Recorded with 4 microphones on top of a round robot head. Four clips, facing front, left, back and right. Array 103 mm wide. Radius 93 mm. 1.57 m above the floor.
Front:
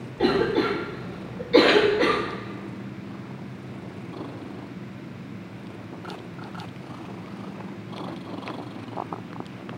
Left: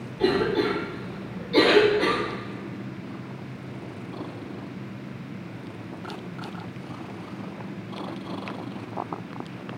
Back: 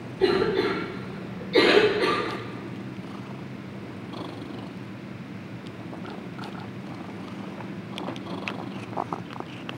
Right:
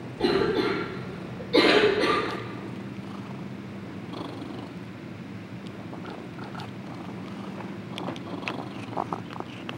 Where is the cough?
10° right, 3.5 m.